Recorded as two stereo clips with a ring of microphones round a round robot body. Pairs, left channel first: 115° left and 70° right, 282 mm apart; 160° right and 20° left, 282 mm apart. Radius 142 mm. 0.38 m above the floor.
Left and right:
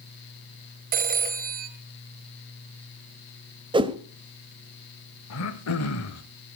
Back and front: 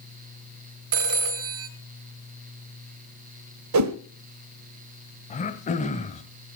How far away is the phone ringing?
About 1.5 m.